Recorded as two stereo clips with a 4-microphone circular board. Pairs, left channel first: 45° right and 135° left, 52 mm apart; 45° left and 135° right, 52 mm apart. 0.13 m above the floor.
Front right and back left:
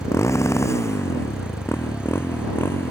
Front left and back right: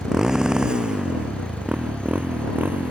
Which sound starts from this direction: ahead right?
A motorcycle, at 0.0 s.